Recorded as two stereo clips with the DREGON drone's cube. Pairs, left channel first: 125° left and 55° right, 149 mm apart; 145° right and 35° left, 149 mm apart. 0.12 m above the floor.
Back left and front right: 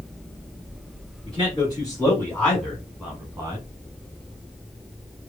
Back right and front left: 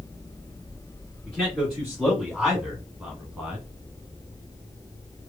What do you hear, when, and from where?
1.3 s a man speaking: 135° left, 1.9 m; by 3.6 s 30° right, 1.7 m